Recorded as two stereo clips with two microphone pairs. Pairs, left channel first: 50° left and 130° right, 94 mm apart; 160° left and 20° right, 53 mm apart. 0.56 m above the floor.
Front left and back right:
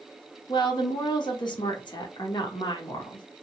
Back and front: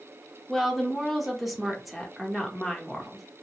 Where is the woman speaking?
65° left, 0.9 m.